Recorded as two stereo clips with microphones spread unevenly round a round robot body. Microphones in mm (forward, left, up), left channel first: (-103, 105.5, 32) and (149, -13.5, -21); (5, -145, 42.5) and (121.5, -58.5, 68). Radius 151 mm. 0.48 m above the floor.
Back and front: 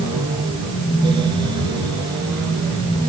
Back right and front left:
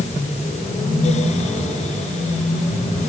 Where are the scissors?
No scissors in this recording.